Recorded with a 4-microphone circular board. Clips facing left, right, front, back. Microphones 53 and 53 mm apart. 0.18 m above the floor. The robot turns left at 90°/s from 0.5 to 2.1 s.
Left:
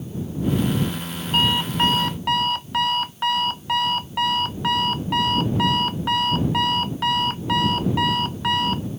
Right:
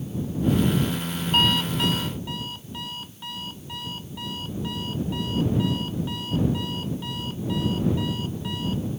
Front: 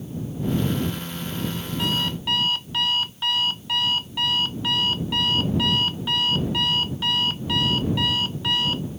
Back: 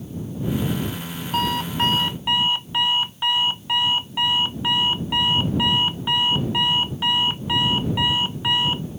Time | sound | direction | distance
1.3 | an alarm clock | straight behind | ?